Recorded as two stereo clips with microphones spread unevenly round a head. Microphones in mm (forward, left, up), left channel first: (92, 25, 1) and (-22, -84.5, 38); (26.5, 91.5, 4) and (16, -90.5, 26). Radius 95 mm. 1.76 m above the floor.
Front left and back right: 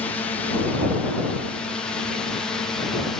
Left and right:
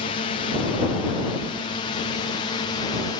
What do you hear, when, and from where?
0.0 s a drone: 95° left; by 3.2 s 105° left